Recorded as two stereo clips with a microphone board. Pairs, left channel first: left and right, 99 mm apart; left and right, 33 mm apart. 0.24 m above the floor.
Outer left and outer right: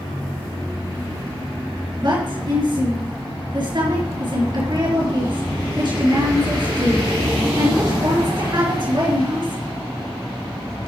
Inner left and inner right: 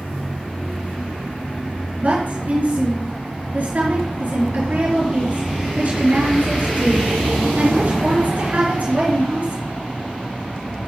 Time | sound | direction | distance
2.0 | a woman speaking | 45° right (ahead or behind) | 4 m